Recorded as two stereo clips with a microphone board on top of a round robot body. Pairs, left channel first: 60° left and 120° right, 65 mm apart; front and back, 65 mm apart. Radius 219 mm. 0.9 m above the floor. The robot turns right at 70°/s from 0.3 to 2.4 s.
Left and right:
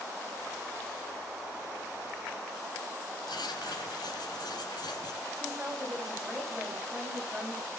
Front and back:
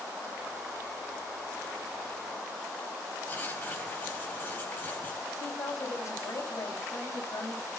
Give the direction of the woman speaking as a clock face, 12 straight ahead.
2 o'clock.